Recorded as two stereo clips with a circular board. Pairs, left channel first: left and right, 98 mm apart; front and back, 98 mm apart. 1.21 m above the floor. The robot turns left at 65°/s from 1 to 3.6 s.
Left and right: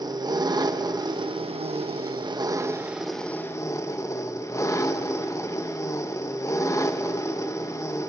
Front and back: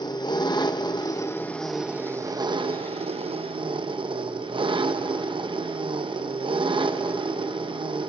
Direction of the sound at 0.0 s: 45° right.